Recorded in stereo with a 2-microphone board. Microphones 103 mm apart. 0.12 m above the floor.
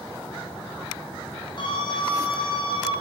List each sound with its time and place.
1.6 s a scream: 50° left (ahead or behind), 6.5 m